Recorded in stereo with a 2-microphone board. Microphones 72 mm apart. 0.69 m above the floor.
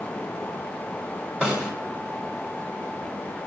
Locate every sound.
1.4 s a snare drum: 15° right (ahead or behind), 3 m